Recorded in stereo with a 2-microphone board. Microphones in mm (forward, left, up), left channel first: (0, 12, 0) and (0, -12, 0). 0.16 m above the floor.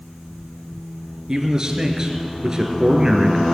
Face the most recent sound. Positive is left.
turn(degrees=-25)  # may be behind; listen again after turning